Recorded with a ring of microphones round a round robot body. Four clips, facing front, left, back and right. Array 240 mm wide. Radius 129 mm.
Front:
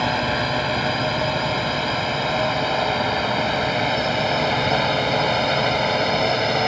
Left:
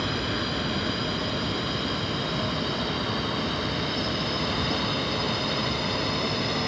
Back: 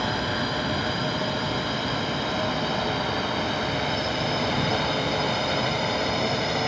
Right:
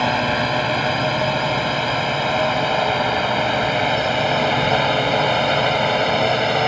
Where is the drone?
65° right.